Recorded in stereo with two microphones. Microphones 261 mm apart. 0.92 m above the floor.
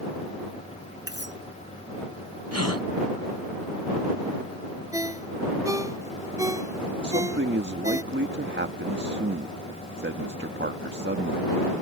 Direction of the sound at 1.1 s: 40° left (ahead or behind).